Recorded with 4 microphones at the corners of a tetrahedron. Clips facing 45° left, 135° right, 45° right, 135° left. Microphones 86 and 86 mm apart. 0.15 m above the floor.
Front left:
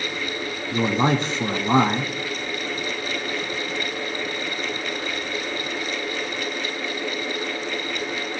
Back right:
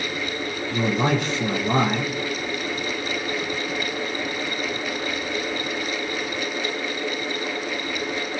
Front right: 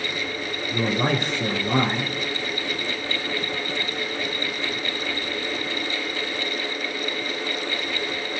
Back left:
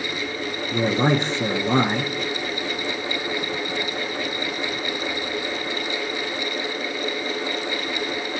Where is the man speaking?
85° left, 1.4 m.